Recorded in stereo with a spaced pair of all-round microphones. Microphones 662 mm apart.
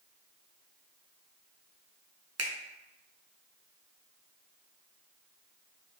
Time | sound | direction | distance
2.4 | a finger snap | 25° right (ahead or behind) | 0.7 m